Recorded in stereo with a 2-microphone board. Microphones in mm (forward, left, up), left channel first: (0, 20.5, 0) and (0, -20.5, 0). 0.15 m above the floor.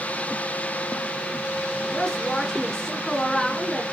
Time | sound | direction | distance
1.9 | a woman speaking | 15° left (ahead or behind) | 1.7 m